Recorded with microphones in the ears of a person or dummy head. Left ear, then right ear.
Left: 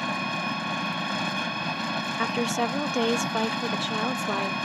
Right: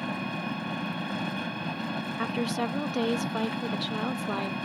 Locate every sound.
0.0 s an engine running: 25° left (ahead or behind)
2.2 s a woman speaking: 25° left (ahead or behind)